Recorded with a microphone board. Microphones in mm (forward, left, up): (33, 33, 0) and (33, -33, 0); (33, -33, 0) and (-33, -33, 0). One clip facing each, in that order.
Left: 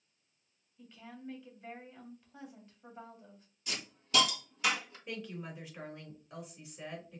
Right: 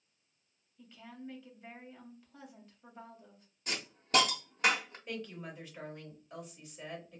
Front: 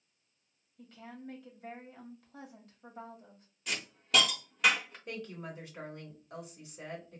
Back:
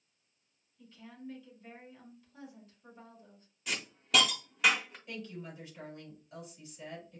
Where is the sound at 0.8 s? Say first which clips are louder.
Right 1 dB, front 2 dB; straight ahead, 1.9 m.